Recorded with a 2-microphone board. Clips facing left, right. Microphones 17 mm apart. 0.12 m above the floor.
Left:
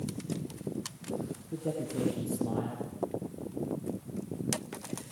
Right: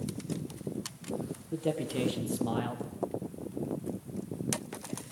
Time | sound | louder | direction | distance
1.5 | a man speaking | right 3 dB | 60° right (ahead or behind) | 4 m